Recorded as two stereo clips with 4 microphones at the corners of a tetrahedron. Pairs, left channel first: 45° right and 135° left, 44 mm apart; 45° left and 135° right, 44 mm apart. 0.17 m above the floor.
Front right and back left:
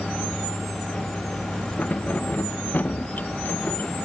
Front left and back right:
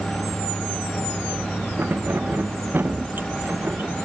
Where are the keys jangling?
95° right; by 4.1 s 90° right.